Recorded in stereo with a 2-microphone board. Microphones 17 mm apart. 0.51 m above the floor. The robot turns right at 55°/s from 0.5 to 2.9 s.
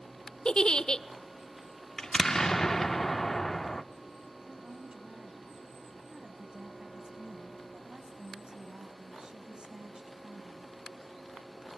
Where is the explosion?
90° left, 0.6 m; by 3.8 s 145° left, 0.6 m.